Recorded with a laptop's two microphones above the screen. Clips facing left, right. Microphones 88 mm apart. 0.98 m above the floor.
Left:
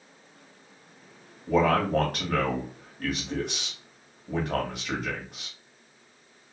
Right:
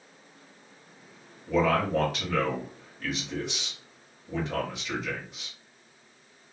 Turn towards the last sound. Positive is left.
turn(degrees=55)  # may be behind; listen again after turning